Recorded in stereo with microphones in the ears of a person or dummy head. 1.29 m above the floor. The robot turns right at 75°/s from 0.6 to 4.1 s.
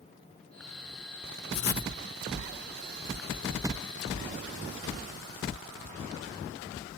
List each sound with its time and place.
1.5 s writing: 60° left (ahead or behind), 0.5 m; by 1.9 s 35° left (ahead or behind), 0.5 m